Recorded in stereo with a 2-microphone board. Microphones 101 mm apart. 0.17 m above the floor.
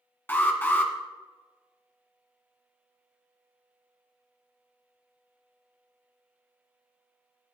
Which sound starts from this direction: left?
An alarm, at 0.3 s.